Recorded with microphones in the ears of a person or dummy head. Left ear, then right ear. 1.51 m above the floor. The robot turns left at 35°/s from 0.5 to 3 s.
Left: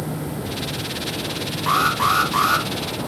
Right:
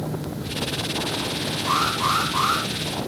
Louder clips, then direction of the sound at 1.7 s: Left 4 dB; 140° left.